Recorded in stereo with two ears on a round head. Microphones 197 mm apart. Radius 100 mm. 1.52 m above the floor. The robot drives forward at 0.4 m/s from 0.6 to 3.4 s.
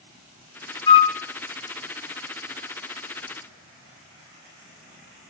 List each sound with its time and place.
0.9 s a flute: 20° left (ahead or behind), 0.7 m; by 1.2 s 25° left (ahead or behind), 0.6 m